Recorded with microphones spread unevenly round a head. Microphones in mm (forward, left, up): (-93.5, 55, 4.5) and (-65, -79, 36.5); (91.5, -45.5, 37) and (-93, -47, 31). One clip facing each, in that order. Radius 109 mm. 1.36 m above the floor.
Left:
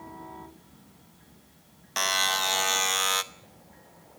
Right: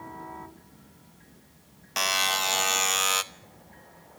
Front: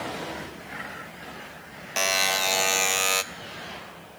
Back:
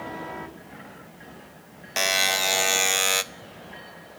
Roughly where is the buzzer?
Right.